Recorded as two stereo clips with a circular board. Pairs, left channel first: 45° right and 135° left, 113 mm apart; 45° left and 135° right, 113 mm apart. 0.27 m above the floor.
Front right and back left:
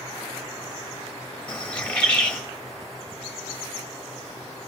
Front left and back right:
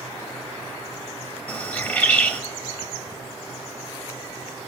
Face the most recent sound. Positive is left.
turn(degrees=15)